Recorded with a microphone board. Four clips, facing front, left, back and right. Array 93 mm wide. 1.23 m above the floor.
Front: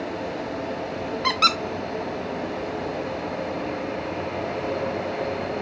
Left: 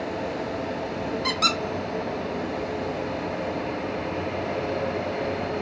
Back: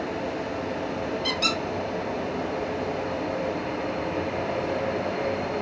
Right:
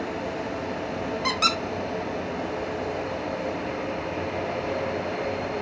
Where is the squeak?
15° right, 0.8 m.